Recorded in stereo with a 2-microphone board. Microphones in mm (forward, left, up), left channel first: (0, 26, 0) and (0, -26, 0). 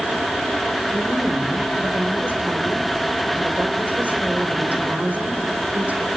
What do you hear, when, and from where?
0.9 s a woman speaking: 30° right (ahead or behind), 3 m